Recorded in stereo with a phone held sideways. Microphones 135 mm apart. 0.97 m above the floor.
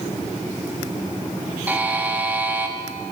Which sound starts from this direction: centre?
A buzzer, at 1.7 s.